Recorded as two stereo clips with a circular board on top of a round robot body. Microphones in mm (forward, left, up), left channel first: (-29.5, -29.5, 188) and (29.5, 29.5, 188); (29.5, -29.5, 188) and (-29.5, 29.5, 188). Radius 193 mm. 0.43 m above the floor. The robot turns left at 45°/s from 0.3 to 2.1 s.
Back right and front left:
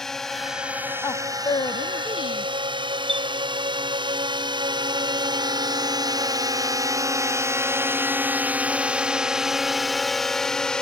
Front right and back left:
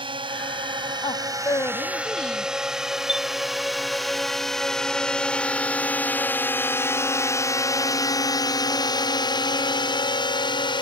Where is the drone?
140° left; by 10.8 s 55° right.